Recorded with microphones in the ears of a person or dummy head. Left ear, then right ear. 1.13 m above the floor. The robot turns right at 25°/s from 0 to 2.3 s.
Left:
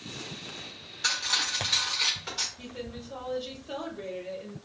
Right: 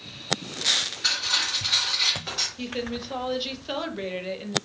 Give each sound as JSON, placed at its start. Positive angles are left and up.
{"t": 1.0, "sound": "cutlery clinking", "azimuth_deg": 155, "distance_m": 1.1}
{"t": 2.6, "sound": "a woman speaking", "side_deg": -50, "distance_m": 0.6}